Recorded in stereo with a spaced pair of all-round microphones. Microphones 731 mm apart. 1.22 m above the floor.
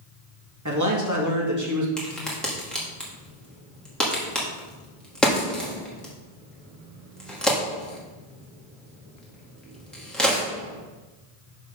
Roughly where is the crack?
Centre.